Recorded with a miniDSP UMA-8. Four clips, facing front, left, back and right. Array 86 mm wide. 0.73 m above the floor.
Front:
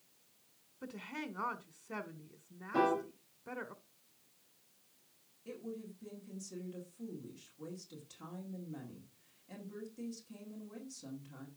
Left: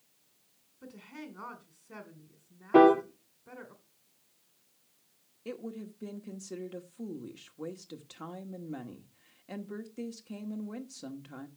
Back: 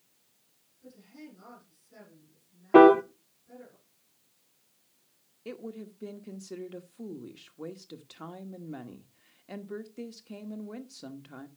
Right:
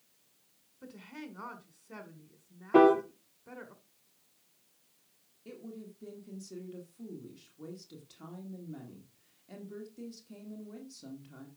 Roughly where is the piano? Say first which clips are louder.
Left 2 dB, back 16 dB; behind.